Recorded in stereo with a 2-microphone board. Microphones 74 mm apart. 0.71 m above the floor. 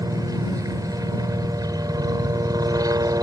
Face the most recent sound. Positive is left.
turn(degrees=-55)  # may be behind; listen again after turning